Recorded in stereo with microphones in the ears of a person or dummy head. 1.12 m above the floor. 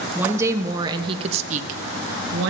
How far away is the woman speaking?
About 1.3 m.